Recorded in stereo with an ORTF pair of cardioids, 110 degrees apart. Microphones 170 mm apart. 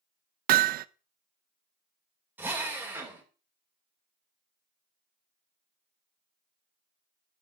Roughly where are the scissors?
No scissors in this recording.